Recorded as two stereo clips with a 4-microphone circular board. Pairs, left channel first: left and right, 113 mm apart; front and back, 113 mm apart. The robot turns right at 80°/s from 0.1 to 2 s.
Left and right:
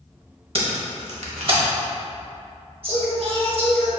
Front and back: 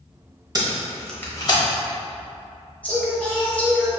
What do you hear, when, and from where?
0.6 s tape being pulled: 125° right, 0.9 m; by 1.6 s 40° right, 0.9 m
2.8 s singing: 75° right, 1.0 m